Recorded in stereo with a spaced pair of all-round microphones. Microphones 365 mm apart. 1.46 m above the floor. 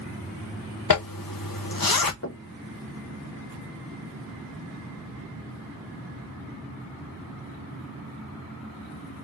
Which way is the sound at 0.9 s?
65° left (ahead or behind).